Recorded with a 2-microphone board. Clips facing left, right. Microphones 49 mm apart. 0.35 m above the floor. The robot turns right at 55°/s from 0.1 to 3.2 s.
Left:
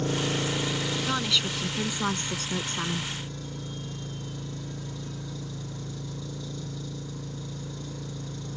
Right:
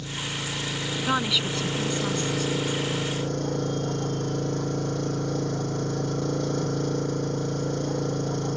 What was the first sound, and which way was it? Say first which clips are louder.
An engine running: left 5 dB; 135° left.